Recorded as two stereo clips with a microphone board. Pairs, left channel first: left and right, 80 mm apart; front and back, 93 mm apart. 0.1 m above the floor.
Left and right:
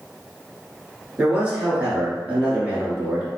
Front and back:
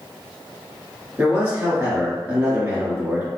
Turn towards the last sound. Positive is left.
turn(degrees=-135)